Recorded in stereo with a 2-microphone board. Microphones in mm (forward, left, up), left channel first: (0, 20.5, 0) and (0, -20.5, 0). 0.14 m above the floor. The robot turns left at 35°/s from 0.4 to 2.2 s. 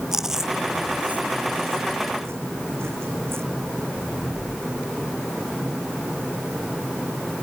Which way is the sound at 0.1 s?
10° right (ahead or behind).